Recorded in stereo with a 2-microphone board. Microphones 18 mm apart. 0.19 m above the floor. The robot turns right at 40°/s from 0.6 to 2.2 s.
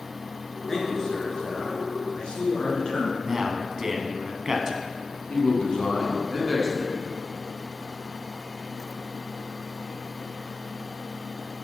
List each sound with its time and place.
0.7 s a man speaking: 35° left, 2.5 m; by 3.1 s 95° left, 2.5 m
3.2 s a man speaking: 30° right (ahead or behind), 1.1 m
5.3 s a man speaking: 50° left (ahead or behind), 2 m